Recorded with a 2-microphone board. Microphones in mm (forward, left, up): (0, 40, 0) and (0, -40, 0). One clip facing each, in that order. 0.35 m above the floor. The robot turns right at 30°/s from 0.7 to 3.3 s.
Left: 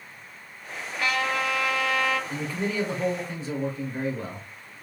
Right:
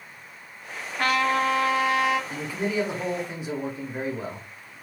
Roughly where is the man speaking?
Centre.